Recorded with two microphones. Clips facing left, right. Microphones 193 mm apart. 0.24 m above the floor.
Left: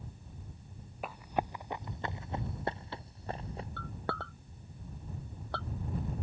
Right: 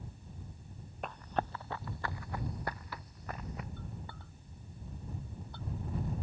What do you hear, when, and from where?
1.0 s running footsteps: 5° left (ahead or behind); by 3.7 s 30° left (ahead or behind)
3.8 s a clink: 80° left